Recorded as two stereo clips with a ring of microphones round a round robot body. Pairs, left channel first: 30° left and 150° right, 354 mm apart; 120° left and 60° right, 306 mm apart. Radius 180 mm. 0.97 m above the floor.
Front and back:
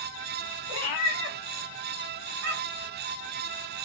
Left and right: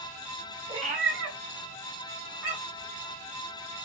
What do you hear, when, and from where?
0.7 s a cat meowing: 15° left, 0.8 m; by 2.9 s 105° right, 1.6 m